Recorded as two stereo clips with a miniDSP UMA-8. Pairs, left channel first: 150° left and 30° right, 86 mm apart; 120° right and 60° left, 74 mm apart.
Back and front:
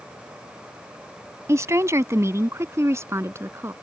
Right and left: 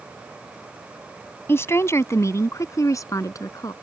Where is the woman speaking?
75° right; by 3.7 s 85° right.